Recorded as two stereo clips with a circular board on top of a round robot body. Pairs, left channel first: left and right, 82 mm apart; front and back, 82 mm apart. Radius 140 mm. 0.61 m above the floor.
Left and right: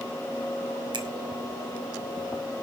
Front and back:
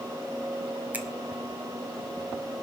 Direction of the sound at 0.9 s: 110° right.